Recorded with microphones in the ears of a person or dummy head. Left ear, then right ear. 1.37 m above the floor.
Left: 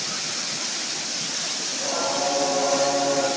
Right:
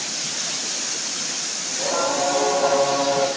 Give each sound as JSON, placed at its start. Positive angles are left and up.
{"t": 1.7, "sound": "singing", "side_deg": -85, "distance_m": 7.0}